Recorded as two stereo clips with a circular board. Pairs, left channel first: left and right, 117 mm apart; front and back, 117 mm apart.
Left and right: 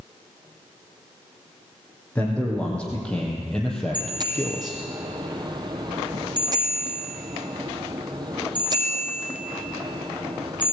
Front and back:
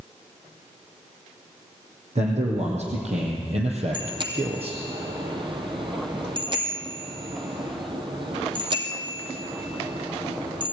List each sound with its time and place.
2.1 s a man speaking: 170° left, 4.5 m; by 4.8 s 175° right, 2 m
3.9 s a bicycle bell: 140° right, 2.5 m